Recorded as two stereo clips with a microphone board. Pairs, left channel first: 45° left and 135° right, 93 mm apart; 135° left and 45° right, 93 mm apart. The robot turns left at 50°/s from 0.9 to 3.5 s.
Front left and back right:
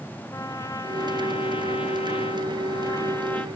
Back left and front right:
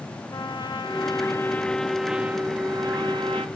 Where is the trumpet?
100° left, 0.9 m; by 3.5 s 30° right, 0.9 m.